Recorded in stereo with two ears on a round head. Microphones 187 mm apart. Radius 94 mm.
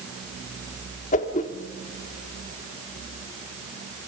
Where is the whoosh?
35° left (ahead or behind), 1.6 m.